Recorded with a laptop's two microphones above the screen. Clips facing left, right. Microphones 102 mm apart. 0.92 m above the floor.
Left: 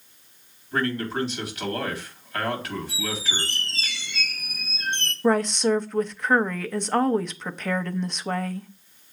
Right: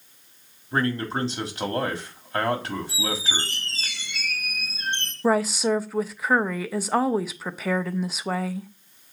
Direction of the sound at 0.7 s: 30° right (ahead or behind).